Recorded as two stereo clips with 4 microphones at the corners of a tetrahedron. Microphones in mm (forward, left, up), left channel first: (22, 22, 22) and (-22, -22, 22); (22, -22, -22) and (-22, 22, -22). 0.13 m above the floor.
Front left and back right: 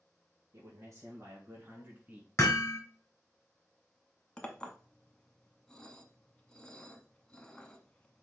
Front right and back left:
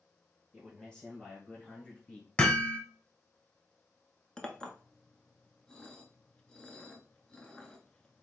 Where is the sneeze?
No sneeze in this recording.